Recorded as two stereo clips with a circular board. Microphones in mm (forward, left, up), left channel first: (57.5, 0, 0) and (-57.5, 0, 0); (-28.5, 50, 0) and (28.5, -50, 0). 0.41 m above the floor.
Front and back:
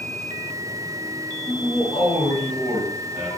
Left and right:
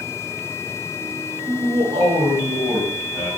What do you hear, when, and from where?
1.5 s a man speaking: 70° right, 1.4 m; by 3.3 s 105° right, 3 m